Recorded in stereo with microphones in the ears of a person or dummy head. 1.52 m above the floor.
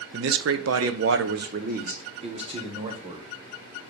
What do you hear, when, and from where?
0.1 s a man speaking: 60° right (ahead or behind), 0.7 m; by 3.3 s 20° right (ahead or behind), 1.5 m